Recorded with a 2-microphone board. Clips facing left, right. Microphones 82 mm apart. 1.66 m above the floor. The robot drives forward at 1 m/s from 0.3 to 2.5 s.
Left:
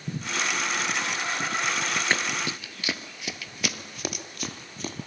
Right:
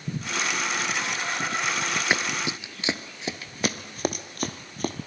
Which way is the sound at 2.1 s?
10° right (ahead or behind).